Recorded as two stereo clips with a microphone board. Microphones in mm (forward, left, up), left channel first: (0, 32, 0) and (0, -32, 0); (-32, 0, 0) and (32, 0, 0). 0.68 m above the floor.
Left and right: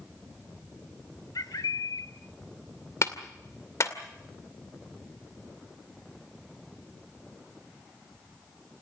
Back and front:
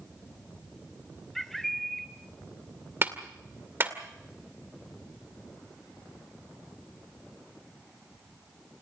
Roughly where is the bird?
Left.